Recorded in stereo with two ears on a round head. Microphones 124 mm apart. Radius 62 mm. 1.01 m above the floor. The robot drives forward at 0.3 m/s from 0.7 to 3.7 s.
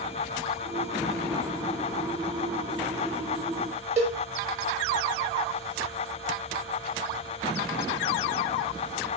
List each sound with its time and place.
4.0 s a cowbell: 50° right (ahead or behind), 5 m